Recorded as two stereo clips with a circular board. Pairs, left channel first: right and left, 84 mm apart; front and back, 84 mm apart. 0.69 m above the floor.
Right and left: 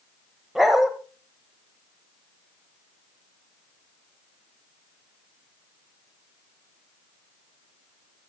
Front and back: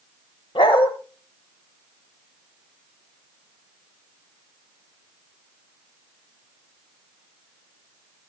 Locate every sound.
0.6 s a dog barking: 5° left, 1.2 m